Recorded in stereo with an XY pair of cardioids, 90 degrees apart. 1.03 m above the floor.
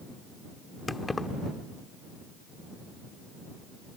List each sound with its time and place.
0.9 s keys jangling: 20° left